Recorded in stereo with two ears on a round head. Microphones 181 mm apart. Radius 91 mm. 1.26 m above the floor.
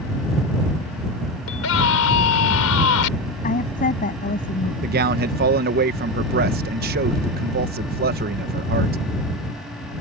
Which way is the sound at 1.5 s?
80° left.